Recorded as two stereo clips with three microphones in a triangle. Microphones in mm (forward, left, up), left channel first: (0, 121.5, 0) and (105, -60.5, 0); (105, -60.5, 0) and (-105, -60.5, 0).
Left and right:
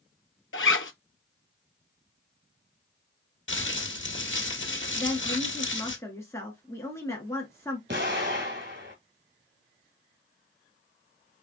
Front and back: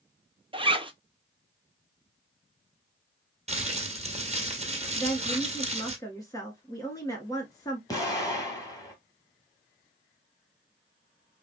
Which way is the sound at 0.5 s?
120° left.